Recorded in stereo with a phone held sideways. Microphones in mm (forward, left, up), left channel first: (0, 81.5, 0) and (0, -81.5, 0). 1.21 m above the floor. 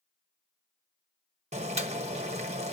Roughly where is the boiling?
Right.